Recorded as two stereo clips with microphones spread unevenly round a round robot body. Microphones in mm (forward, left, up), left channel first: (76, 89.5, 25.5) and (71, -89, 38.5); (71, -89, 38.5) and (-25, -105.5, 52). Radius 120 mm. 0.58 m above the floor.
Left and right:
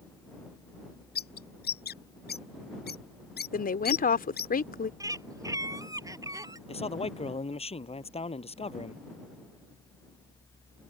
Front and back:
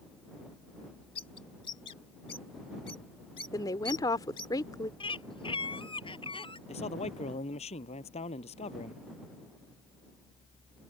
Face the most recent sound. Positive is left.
turn(degrees=30)